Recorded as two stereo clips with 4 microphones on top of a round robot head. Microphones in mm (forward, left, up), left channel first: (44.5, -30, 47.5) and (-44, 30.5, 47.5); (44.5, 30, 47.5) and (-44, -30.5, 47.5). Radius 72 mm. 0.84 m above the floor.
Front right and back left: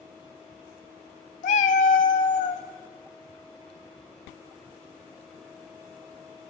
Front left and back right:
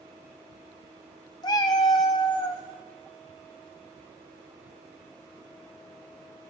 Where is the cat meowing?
20° right, 0.8 m.